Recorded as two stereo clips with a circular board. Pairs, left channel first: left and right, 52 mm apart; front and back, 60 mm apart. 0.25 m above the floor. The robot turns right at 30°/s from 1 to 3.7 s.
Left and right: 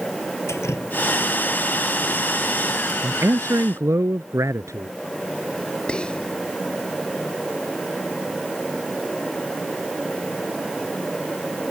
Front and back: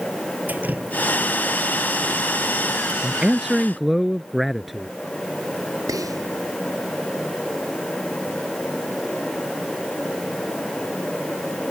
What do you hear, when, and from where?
0.5 s dripping: 120° left; by 2.9 s 175° left
3.0 s a man speaking: 115° right; by 4.9 s 95° right
5.9 s whispering: 160° left